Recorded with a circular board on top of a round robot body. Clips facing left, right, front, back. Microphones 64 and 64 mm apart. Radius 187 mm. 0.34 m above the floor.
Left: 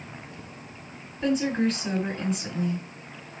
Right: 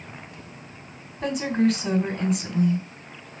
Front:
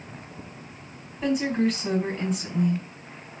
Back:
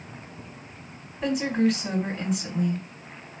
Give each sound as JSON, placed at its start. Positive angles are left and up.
{"t": 1.2, "sound": "a woman speaking", "azimuth_deg": -95, "distance_m": 2.5}